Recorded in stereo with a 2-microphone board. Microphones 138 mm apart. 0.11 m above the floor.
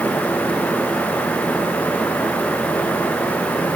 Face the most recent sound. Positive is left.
No sound to turn to.